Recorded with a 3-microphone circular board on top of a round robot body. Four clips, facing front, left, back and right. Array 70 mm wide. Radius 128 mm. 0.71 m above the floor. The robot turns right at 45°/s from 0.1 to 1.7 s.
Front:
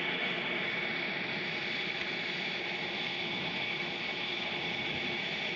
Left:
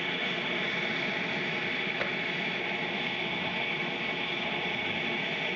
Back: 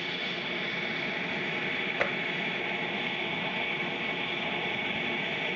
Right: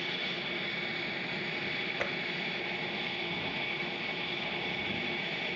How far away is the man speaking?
I don't hear a man speaking.